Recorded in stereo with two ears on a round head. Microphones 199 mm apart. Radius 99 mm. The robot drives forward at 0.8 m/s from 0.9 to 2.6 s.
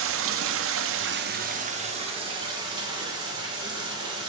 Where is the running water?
65° right (ahead or behind), 0.7 m; by 4.3 s 20° right (ahead or behind), 1.8 m.